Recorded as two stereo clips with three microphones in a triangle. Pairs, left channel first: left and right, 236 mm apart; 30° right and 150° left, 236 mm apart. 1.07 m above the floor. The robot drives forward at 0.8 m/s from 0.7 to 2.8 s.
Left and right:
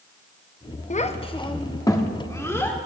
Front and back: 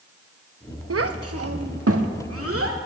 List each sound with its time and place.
0.9 s a child speaking: 145° left, 0.7 m; by 2.8 s 170° left, 2 m